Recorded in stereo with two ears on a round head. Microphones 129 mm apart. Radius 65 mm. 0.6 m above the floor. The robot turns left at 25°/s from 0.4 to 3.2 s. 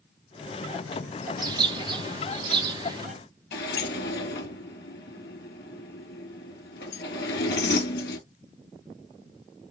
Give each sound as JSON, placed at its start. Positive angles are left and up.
{"t": 1.4, "sound": "a bird", "azimuth_deg": -70, "distance_m": 1.1}
{"t": 3.5, "sound": "a sliding door", "side_deg": 85, "distance_m": 3.0}